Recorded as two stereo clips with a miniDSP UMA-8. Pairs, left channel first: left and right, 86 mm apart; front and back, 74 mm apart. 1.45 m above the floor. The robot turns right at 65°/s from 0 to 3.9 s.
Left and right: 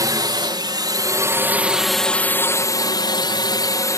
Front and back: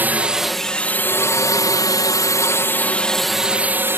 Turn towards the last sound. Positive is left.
turn(degrees=130)